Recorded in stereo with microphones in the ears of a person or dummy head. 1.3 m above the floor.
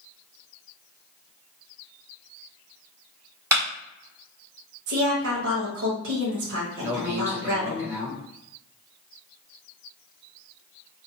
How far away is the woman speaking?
About 0.8 m.